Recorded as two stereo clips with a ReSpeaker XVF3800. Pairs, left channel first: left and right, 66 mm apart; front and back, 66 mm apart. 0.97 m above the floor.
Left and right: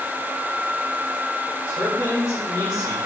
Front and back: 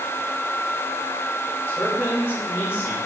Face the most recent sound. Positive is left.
turn(degrees=50)